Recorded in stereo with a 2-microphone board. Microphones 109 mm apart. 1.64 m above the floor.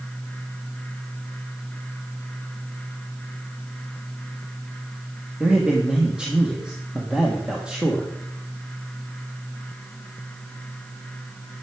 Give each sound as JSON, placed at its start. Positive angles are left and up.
{"t": 5.4, "sound": "a man speaking", "side_deg": -10, "distance_m": 1.4}